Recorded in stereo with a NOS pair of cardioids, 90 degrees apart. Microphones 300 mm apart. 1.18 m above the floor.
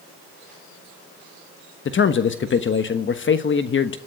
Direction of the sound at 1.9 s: 40° left.